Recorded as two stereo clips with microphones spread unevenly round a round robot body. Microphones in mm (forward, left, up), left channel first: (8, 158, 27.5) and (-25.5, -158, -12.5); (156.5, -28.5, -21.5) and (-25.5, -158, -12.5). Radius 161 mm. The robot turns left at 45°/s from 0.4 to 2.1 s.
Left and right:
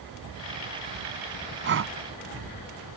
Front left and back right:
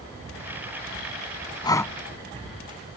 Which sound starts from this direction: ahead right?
Breathing, at 1.6 s.